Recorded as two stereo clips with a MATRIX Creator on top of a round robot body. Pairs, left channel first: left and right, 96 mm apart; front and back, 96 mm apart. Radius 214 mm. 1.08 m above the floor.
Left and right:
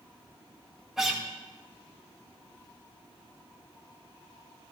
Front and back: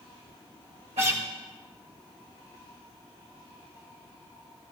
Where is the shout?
No shout in this recording.